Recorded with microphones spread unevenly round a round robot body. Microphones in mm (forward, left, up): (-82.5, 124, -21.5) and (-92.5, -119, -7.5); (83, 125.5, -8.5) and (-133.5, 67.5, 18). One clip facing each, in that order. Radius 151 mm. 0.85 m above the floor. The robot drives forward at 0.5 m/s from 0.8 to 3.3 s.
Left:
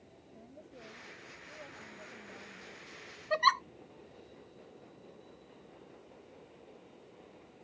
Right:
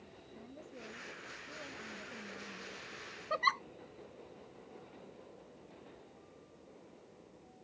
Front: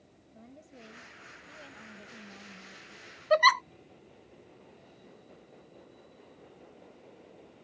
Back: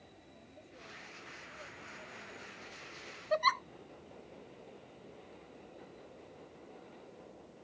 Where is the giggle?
30° left.